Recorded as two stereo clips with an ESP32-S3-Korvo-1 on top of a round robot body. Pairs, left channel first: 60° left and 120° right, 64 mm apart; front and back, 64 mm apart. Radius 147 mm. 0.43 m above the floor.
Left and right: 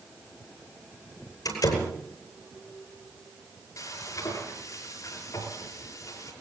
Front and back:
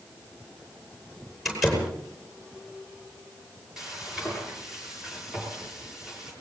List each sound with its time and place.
1.4 s a door slam: 90° left, 9.5 m
3.8 s frying: 100° left, 8.5 m